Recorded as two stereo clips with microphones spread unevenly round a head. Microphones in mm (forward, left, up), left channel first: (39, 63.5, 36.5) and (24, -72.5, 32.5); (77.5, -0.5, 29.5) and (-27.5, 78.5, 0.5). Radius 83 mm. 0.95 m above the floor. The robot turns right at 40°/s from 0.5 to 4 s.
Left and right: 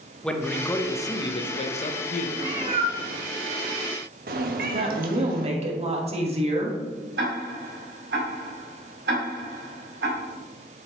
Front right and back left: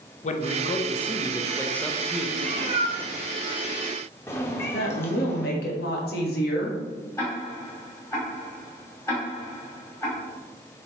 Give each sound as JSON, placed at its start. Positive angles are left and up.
{"t": 0.2, "sound": "a man speaking", "azimuth_deg": 0, "distance_m": 0.8}
{"t": 2.4, "sound": "a cat meowing", "azimuth_deg": -165, "distance_m": 0.7}
{"t": 4.7, "sound": "a woman speaking", "azimuth_deg": -55, "distance_m": 1.5}
{"t": 7.2, "sound": "ticking", "azimuth_deg": -110, "distance_m": 2.5}